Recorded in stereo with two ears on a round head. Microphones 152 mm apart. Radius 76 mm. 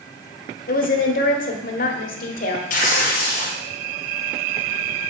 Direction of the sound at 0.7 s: 55° left (ahead or behind).